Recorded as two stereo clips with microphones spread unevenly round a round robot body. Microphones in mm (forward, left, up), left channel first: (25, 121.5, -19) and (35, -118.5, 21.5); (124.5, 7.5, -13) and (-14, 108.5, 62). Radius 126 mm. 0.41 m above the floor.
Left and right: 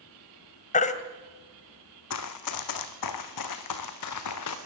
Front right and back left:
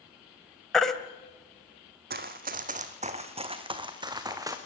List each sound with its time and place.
0.7 s a baby crying: 40° left, 1.6 m
2.1 s running footsteps: 125° left, 1.6 m; by 4.6 s 75° left, 2.5 m